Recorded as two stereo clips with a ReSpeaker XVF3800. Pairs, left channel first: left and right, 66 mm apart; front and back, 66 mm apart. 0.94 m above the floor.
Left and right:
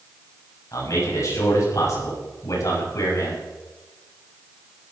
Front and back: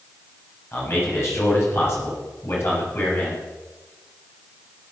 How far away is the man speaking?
About 7 m.